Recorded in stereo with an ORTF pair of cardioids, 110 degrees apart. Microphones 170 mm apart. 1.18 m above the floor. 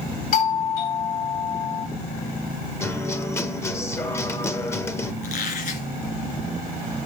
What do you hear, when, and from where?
0.3 s a doorbell: 60° left, 2.5 m
2.8 s a guitar: 15° left, 0.8 m
5.2 s a squeak: 60° left, 3 m